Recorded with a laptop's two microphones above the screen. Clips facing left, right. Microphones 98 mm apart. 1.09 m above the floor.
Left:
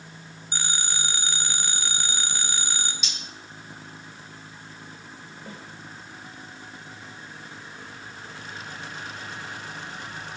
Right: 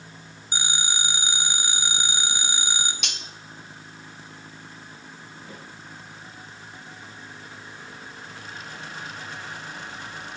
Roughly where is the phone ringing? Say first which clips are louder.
Right 2 dB; centre.